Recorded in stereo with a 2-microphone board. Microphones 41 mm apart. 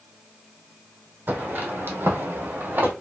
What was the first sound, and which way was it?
Footsteps, 45° right (ahead or behind).